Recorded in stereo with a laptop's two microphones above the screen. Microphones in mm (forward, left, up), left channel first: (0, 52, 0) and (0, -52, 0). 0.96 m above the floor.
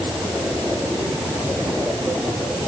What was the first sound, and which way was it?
Only background noise.